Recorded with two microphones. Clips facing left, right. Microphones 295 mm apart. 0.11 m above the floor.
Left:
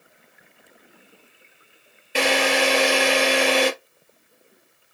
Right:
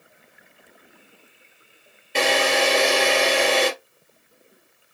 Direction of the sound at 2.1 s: 5° left (ahead or behind).